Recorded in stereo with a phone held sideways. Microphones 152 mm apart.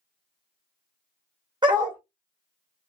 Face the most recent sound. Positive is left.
turn(degrees=-30)  # may be behind; listen again after turning